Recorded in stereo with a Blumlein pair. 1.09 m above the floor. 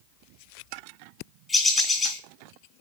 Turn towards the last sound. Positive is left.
turn(degrees=10)